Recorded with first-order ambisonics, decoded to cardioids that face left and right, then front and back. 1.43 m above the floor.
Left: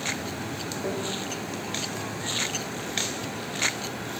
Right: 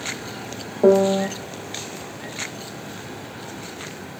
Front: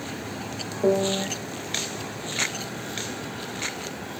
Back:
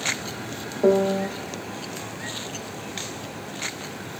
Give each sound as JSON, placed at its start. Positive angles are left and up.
{"t": 0.8, "sound": "a piano", "azimuth_deg": -105, "distance_m": 1.7}